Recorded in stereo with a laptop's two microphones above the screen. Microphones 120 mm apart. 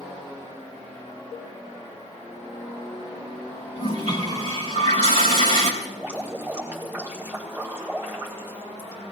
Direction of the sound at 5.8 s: 15° right (ahead or behind).